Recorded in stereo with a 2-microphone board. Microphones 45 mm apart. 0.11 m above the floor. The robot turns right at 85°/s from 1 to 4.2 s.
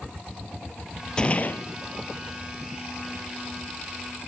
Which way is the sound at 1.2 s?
25° left.